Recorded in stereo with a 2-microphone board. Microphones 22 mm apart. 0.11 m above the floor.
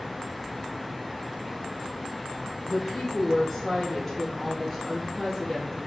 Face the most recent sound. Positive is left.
turn(degrees=5)  # may be behind; listen again after turning